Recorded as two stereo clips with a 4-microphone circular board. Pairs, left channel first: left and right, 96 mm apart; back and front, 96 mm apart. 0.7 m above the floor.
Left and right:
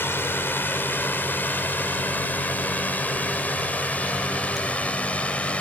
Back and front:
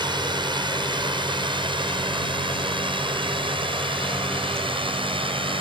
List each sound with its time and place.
0.0 s a drone: 25° left; by 5.6 s 15° left